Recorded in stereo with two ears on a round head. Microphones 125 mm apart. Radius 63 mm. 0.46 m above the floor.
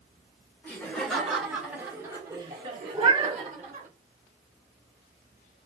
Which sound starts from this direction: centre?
Laughter, at 0.6 s.